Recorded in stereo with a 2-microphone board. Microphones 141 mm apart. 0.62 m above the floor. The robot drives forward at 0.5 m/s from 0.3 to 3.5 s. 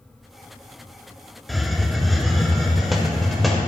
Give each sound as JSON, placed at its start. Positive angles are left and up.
{"t": 1.5, "sound": "a hiss", "side_deg": 0, "distance_m": 0.5}